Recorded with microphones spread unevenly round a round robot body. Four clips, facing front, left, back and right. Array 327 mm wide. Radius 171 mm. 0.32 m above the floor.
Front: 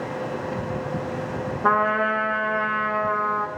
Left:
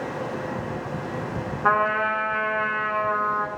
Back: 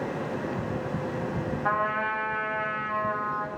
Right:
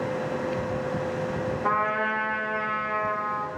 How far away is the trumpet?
About 1.4 m.